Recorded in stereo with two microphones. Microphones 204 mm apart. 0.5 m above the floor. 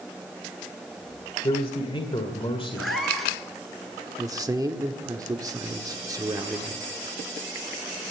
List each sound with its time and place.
1.4 s a man speaking: 25° left (ahead or behind), 1.7 m
2.8 s a cat meowing: centre (ahead or behind), 2.5 m
4.2 s a man speaking: 20° right (ahead or behind), 1.0 m